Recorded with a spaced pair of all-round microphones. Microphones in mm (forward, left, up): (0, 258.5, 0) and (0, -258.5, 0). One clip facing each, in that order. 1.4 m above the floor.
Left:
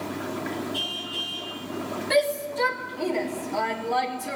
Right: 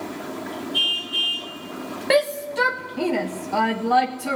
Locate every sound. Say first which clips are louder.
0.7 s a car horn: right 1 dB; 55° left (ahead or behind), 7 m
2.1 s a shout: right 4 dB; 70° right (ahead or behind), 1.5 m